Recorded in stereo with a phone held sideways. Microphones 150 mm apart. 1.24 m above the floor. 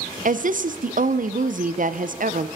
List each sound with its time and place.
0.2 s a woman speaking: 60° right (ahead or behind), 0.6 m